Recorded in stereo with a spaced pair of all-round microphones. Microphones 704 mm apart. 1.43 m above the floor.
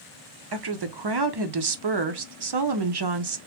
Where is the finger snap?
No finger snap in this recording.